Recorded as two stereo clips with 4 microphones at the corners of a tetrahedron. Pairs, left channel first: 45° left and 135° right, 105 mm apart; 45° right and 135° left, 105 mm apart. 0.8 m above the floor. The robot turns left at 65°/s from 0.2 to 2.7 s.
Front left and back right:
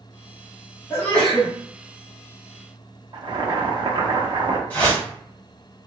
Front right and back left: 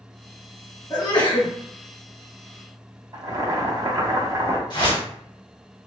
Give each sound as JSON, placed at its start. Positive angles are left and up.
{"t": 0.9, "sound": "a sneeze", "azimuth_deg": -10, "distance_m": 0.9}
{"t": 3.1, "sound": "boiling", "azimuth_deg": -175, "distance_m": 0.5}
{"t": 4.7, "sound": "a whoosh", "azimuth_deg": -20, "distance_m": 1.2}